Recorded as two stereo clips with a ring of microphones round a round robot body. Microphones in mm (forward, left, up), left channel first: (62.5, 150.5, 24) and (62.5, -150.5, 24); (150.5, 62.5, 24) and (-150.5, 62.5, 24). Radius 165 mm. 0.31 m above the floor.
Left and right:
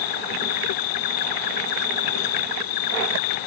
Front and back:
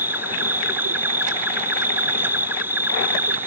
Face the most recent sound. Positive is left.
turn(degrees=95)